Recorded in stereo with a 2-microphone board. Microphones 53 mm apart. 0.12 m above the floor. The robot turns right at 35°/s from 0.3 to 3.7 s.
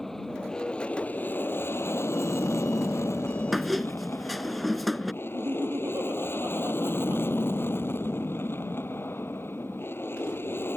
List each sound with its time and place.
0.0 s an aircraft: 10° left; by 10.8 s 125° left
3.5 s a squeak: centre (ahead or behind)
5.2 s laughter: 50° right (ahead or behind)